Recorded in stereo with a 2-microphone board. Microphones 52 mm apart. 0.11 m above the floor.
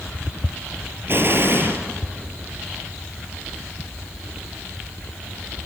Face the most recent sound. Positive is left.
turn(degrees=-45)  # may be behind; listen again after turning